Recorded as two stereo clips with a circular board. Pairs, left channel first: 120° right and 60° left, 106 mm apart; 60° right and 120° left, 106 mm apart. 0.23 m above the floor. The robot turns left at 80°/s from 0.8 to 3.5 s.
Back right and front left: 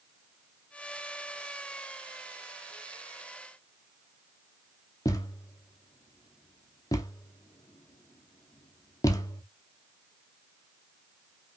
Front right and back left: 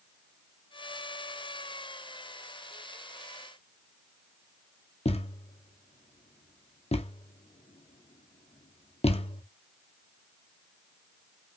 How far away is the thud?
About 1.0 m.